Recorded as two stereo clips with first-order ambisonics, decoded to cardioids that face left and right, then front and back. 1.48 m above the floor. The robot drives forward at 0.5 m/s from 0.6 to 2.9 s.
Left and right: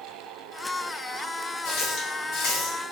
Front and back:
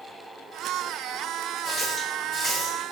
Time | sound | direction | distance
1.6 | a running tap | 75° left | 1.4 m